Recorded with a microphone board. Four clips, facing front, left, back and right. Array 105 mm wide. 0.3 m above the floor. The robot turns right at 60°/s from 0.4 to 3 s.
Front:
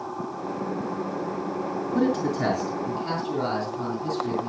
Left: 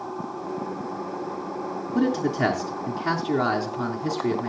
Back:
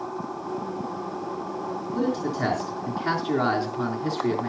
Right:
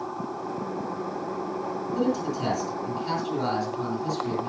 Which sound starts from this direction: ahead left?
A man speaking, at 1.9 s.